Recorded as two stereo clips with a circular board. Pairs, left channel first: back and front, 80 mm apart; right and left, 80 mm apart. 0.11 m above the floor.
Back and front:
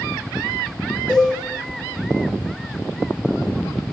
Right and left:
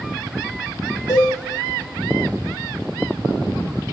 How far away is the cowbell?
About 9 m.